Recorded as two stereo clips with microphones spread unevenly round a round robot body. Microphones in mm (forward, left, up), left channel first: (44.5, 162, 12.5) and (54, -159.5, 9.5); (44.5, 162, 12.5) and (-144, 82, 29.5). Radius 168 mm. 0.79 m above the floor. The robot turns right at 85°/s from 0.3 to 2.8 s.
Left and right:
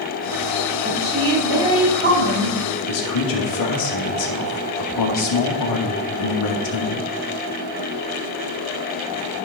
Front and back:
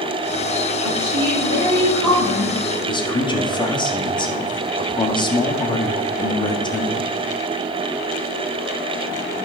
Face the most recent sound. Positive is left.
turn(degrees=85)